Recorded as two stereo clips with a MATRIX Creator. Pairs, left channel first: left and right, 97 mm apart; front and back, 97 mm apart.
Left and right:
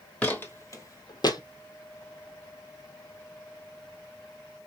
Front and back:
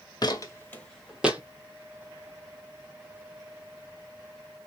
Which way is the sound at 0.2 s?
20° left.